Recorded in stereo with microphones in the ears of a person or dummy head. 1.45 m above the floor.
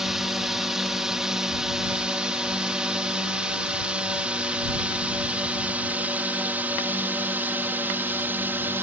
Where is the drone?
Centre (ahead or behind); by 8.8 s 10° right (ahead or behind).